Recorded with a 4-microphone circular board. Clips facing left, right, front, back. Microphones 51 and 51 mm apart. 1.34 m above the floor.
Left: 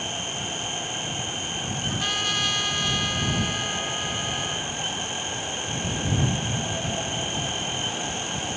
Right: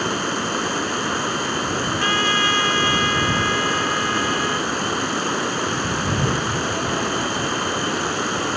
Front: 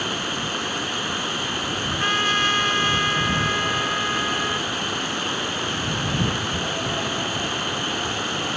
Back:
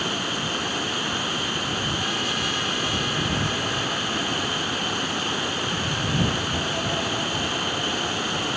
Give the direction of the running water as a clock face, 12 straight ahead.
3 o'clock.